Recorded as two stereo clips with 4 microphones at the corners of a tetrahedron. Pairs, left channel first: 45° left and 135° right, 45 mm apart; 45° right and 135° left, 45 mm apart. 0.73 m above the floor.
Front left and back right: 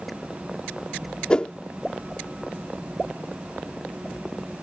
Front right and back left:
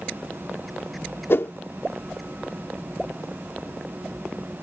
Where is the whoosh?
20° right.